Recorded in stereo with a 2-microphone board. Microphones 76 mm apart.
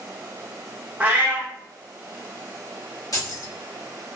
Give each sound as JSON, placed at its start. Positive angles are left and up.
{"t": 1.0, "sound": "a cat meowing", "side_deg": -25, "distance_m": 1.0}
{"t": 3.1, "sound": "keys jangling", "side_deg": 55, "distance_m": 1.4}